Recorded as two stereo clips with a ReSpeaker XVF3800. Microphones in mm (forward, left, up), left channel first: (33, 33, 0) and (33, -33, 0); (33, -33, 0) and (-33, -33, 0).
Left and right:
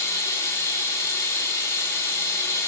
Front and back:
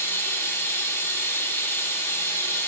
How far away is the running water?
About 0.9 m.